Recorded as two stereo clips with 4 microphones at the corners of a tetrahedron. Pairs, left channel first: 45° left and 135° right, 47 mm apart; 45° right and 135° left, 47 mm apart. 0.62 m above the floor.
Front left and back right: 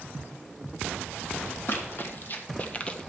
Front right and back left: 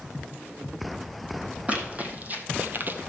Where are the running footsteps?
80° left, 1.7 m; by 3.1 s 115° left, 0.8 m.